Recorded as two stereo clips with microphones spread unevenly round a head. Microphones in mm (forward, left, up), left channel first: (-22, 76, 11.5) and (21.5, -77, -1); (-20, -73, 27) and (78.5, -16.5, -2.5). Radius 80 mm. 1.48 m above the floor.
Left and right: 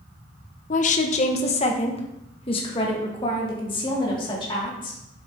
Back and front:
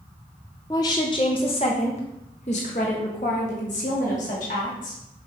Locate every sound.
0.7 s a woman speaking: 145° left, 0.7 m; by 5.3 s 170° left, 3.5 m